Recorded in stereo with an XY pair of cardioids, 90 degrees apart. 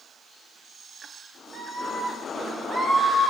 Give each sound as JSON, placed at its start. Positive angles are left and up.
{"t": 1.5, "sound": "a scream", "azimuth_deg": -50, "distance_m": 7.5}